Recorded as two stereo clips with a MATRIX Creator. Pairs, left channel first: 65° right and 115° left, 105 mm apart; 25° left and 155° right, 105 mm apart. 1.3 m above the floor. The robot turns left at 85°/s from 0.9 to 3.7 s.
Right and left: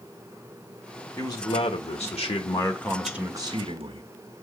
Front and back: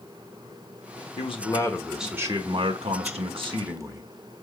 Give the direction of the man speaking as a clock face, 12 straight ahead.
12 o'clock.